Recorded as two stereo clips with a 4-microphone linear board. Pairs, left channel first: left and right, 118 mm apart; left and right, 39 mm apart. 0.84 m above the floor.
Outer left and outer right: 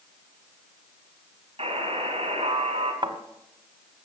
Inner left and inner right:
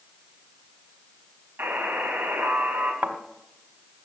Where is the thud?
45° right (ahead or behind), 1.3 m.